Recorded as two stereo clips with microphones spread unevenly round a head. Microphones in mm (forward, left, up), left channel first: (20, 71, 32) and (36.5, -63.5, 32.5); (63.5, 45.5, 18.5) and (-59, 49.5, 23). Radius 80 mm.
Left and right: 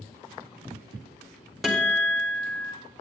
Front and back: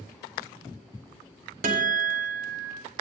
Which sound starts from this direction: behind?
A guitar, at 1.6 s.